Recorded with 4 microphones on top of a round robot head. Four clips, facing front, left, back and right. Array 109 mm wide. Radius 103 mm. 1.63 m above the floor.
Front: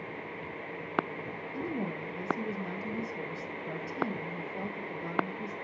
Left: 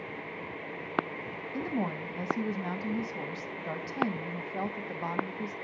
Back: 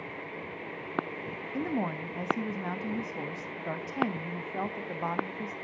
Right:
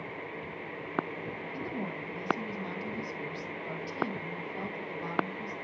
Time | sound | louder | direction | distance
1.5 | a woman speaking | left 7 dB, back 4 dB | 150° left | 1.0 m